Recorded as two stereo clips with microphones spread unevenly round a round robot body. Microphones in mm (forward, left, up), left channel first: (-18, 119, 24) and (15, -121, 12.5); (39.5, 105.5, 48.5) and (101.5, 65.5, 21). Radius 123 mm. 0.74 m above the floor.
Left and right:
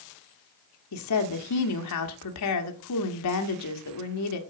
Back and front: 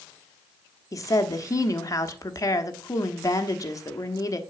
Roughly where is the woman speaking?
Left.